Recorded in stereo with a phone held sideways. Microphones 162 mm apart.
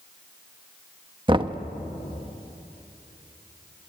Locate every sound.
1.3 s knocking: 30° right (ahead or behind), 0.8 m